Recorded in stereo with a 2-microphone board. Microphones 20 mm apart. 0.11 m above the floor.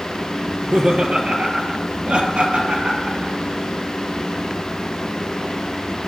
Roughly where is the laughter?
Right.